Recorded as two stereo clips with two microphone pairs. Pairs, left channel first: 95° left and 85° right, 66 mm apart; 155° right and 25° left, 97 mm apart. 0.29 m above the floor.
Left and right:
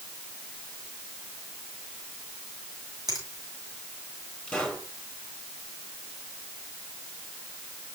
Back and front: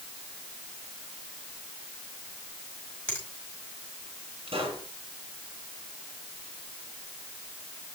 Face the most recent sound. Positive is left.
turn(degrees=15)